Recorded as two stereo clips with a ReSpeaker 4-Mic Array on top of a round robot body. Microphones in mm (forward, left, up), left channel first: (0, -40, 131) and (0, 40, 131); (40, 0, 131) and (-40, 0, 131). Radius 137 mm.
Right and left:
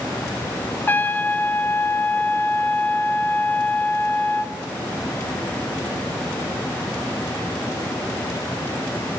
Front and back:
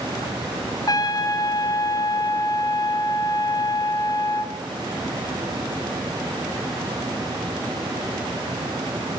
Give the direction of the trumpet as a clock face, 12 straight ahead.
1 o'clock.